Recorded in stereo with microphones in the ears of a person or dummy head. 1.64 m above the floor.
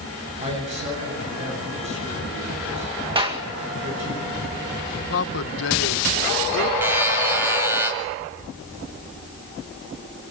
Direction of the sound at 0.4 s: 35° right (ahead or behind).